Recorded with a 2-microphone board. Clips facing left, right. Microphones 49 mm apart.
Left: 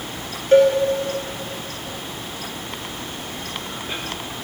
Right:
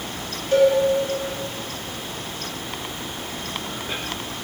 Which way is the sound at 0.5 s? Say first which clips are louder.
Left 3 dB; 45° left (ahead or behind).